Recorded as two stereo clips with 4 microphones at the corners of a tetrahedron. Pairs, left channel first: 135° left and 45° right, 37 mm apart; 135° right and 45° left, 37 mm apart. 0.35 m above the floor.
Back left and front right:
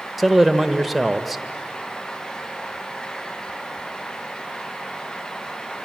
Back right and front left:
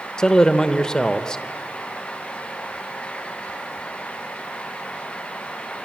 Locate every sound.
0.2 s a man speaking: 130° right, 0.9 m